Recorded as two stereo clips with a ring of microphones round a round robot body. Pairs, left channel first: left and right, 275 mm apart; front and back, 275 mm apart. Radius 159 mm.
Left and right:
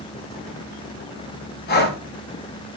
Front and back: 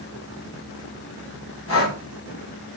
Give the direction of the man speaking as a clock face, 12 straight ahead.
I don't hear a man speaking.